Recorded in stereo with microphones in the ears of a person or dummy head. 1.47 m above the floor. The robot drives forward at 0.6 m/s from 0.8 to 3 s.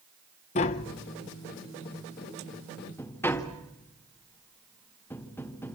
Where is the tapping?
30° left (ahead or behind), 0.6 m; by 5.8 s 10° left (ahead or behind), 1.6 m.